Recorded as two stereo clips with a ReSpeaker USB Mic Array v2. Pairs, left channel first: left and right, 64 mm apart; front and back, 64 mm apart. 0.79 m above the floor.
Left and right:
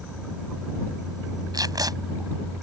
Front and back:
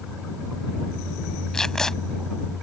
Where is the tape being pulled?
80° right.